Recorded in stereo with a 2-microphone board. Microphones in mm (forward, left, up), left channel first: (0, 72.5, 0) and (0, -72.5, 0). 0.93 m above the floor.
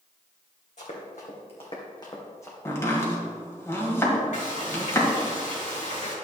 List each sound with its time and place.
0.8 s running footsteps: 60° left (ahead or behind), 2.5 m; by 2.5 s 20° left (ahead or behind), 2 m
2.6 s chopping: 20° left (ahead or behind), 1.9 m
4.3 s frying: 80° left, 3 m